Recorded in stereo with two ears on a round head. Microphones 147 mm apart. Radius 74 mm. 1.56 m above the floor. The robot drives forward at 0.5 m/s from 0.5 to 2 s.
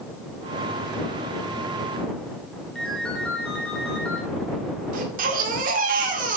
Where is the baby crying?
50° right (ahead or behind), 1.8 m.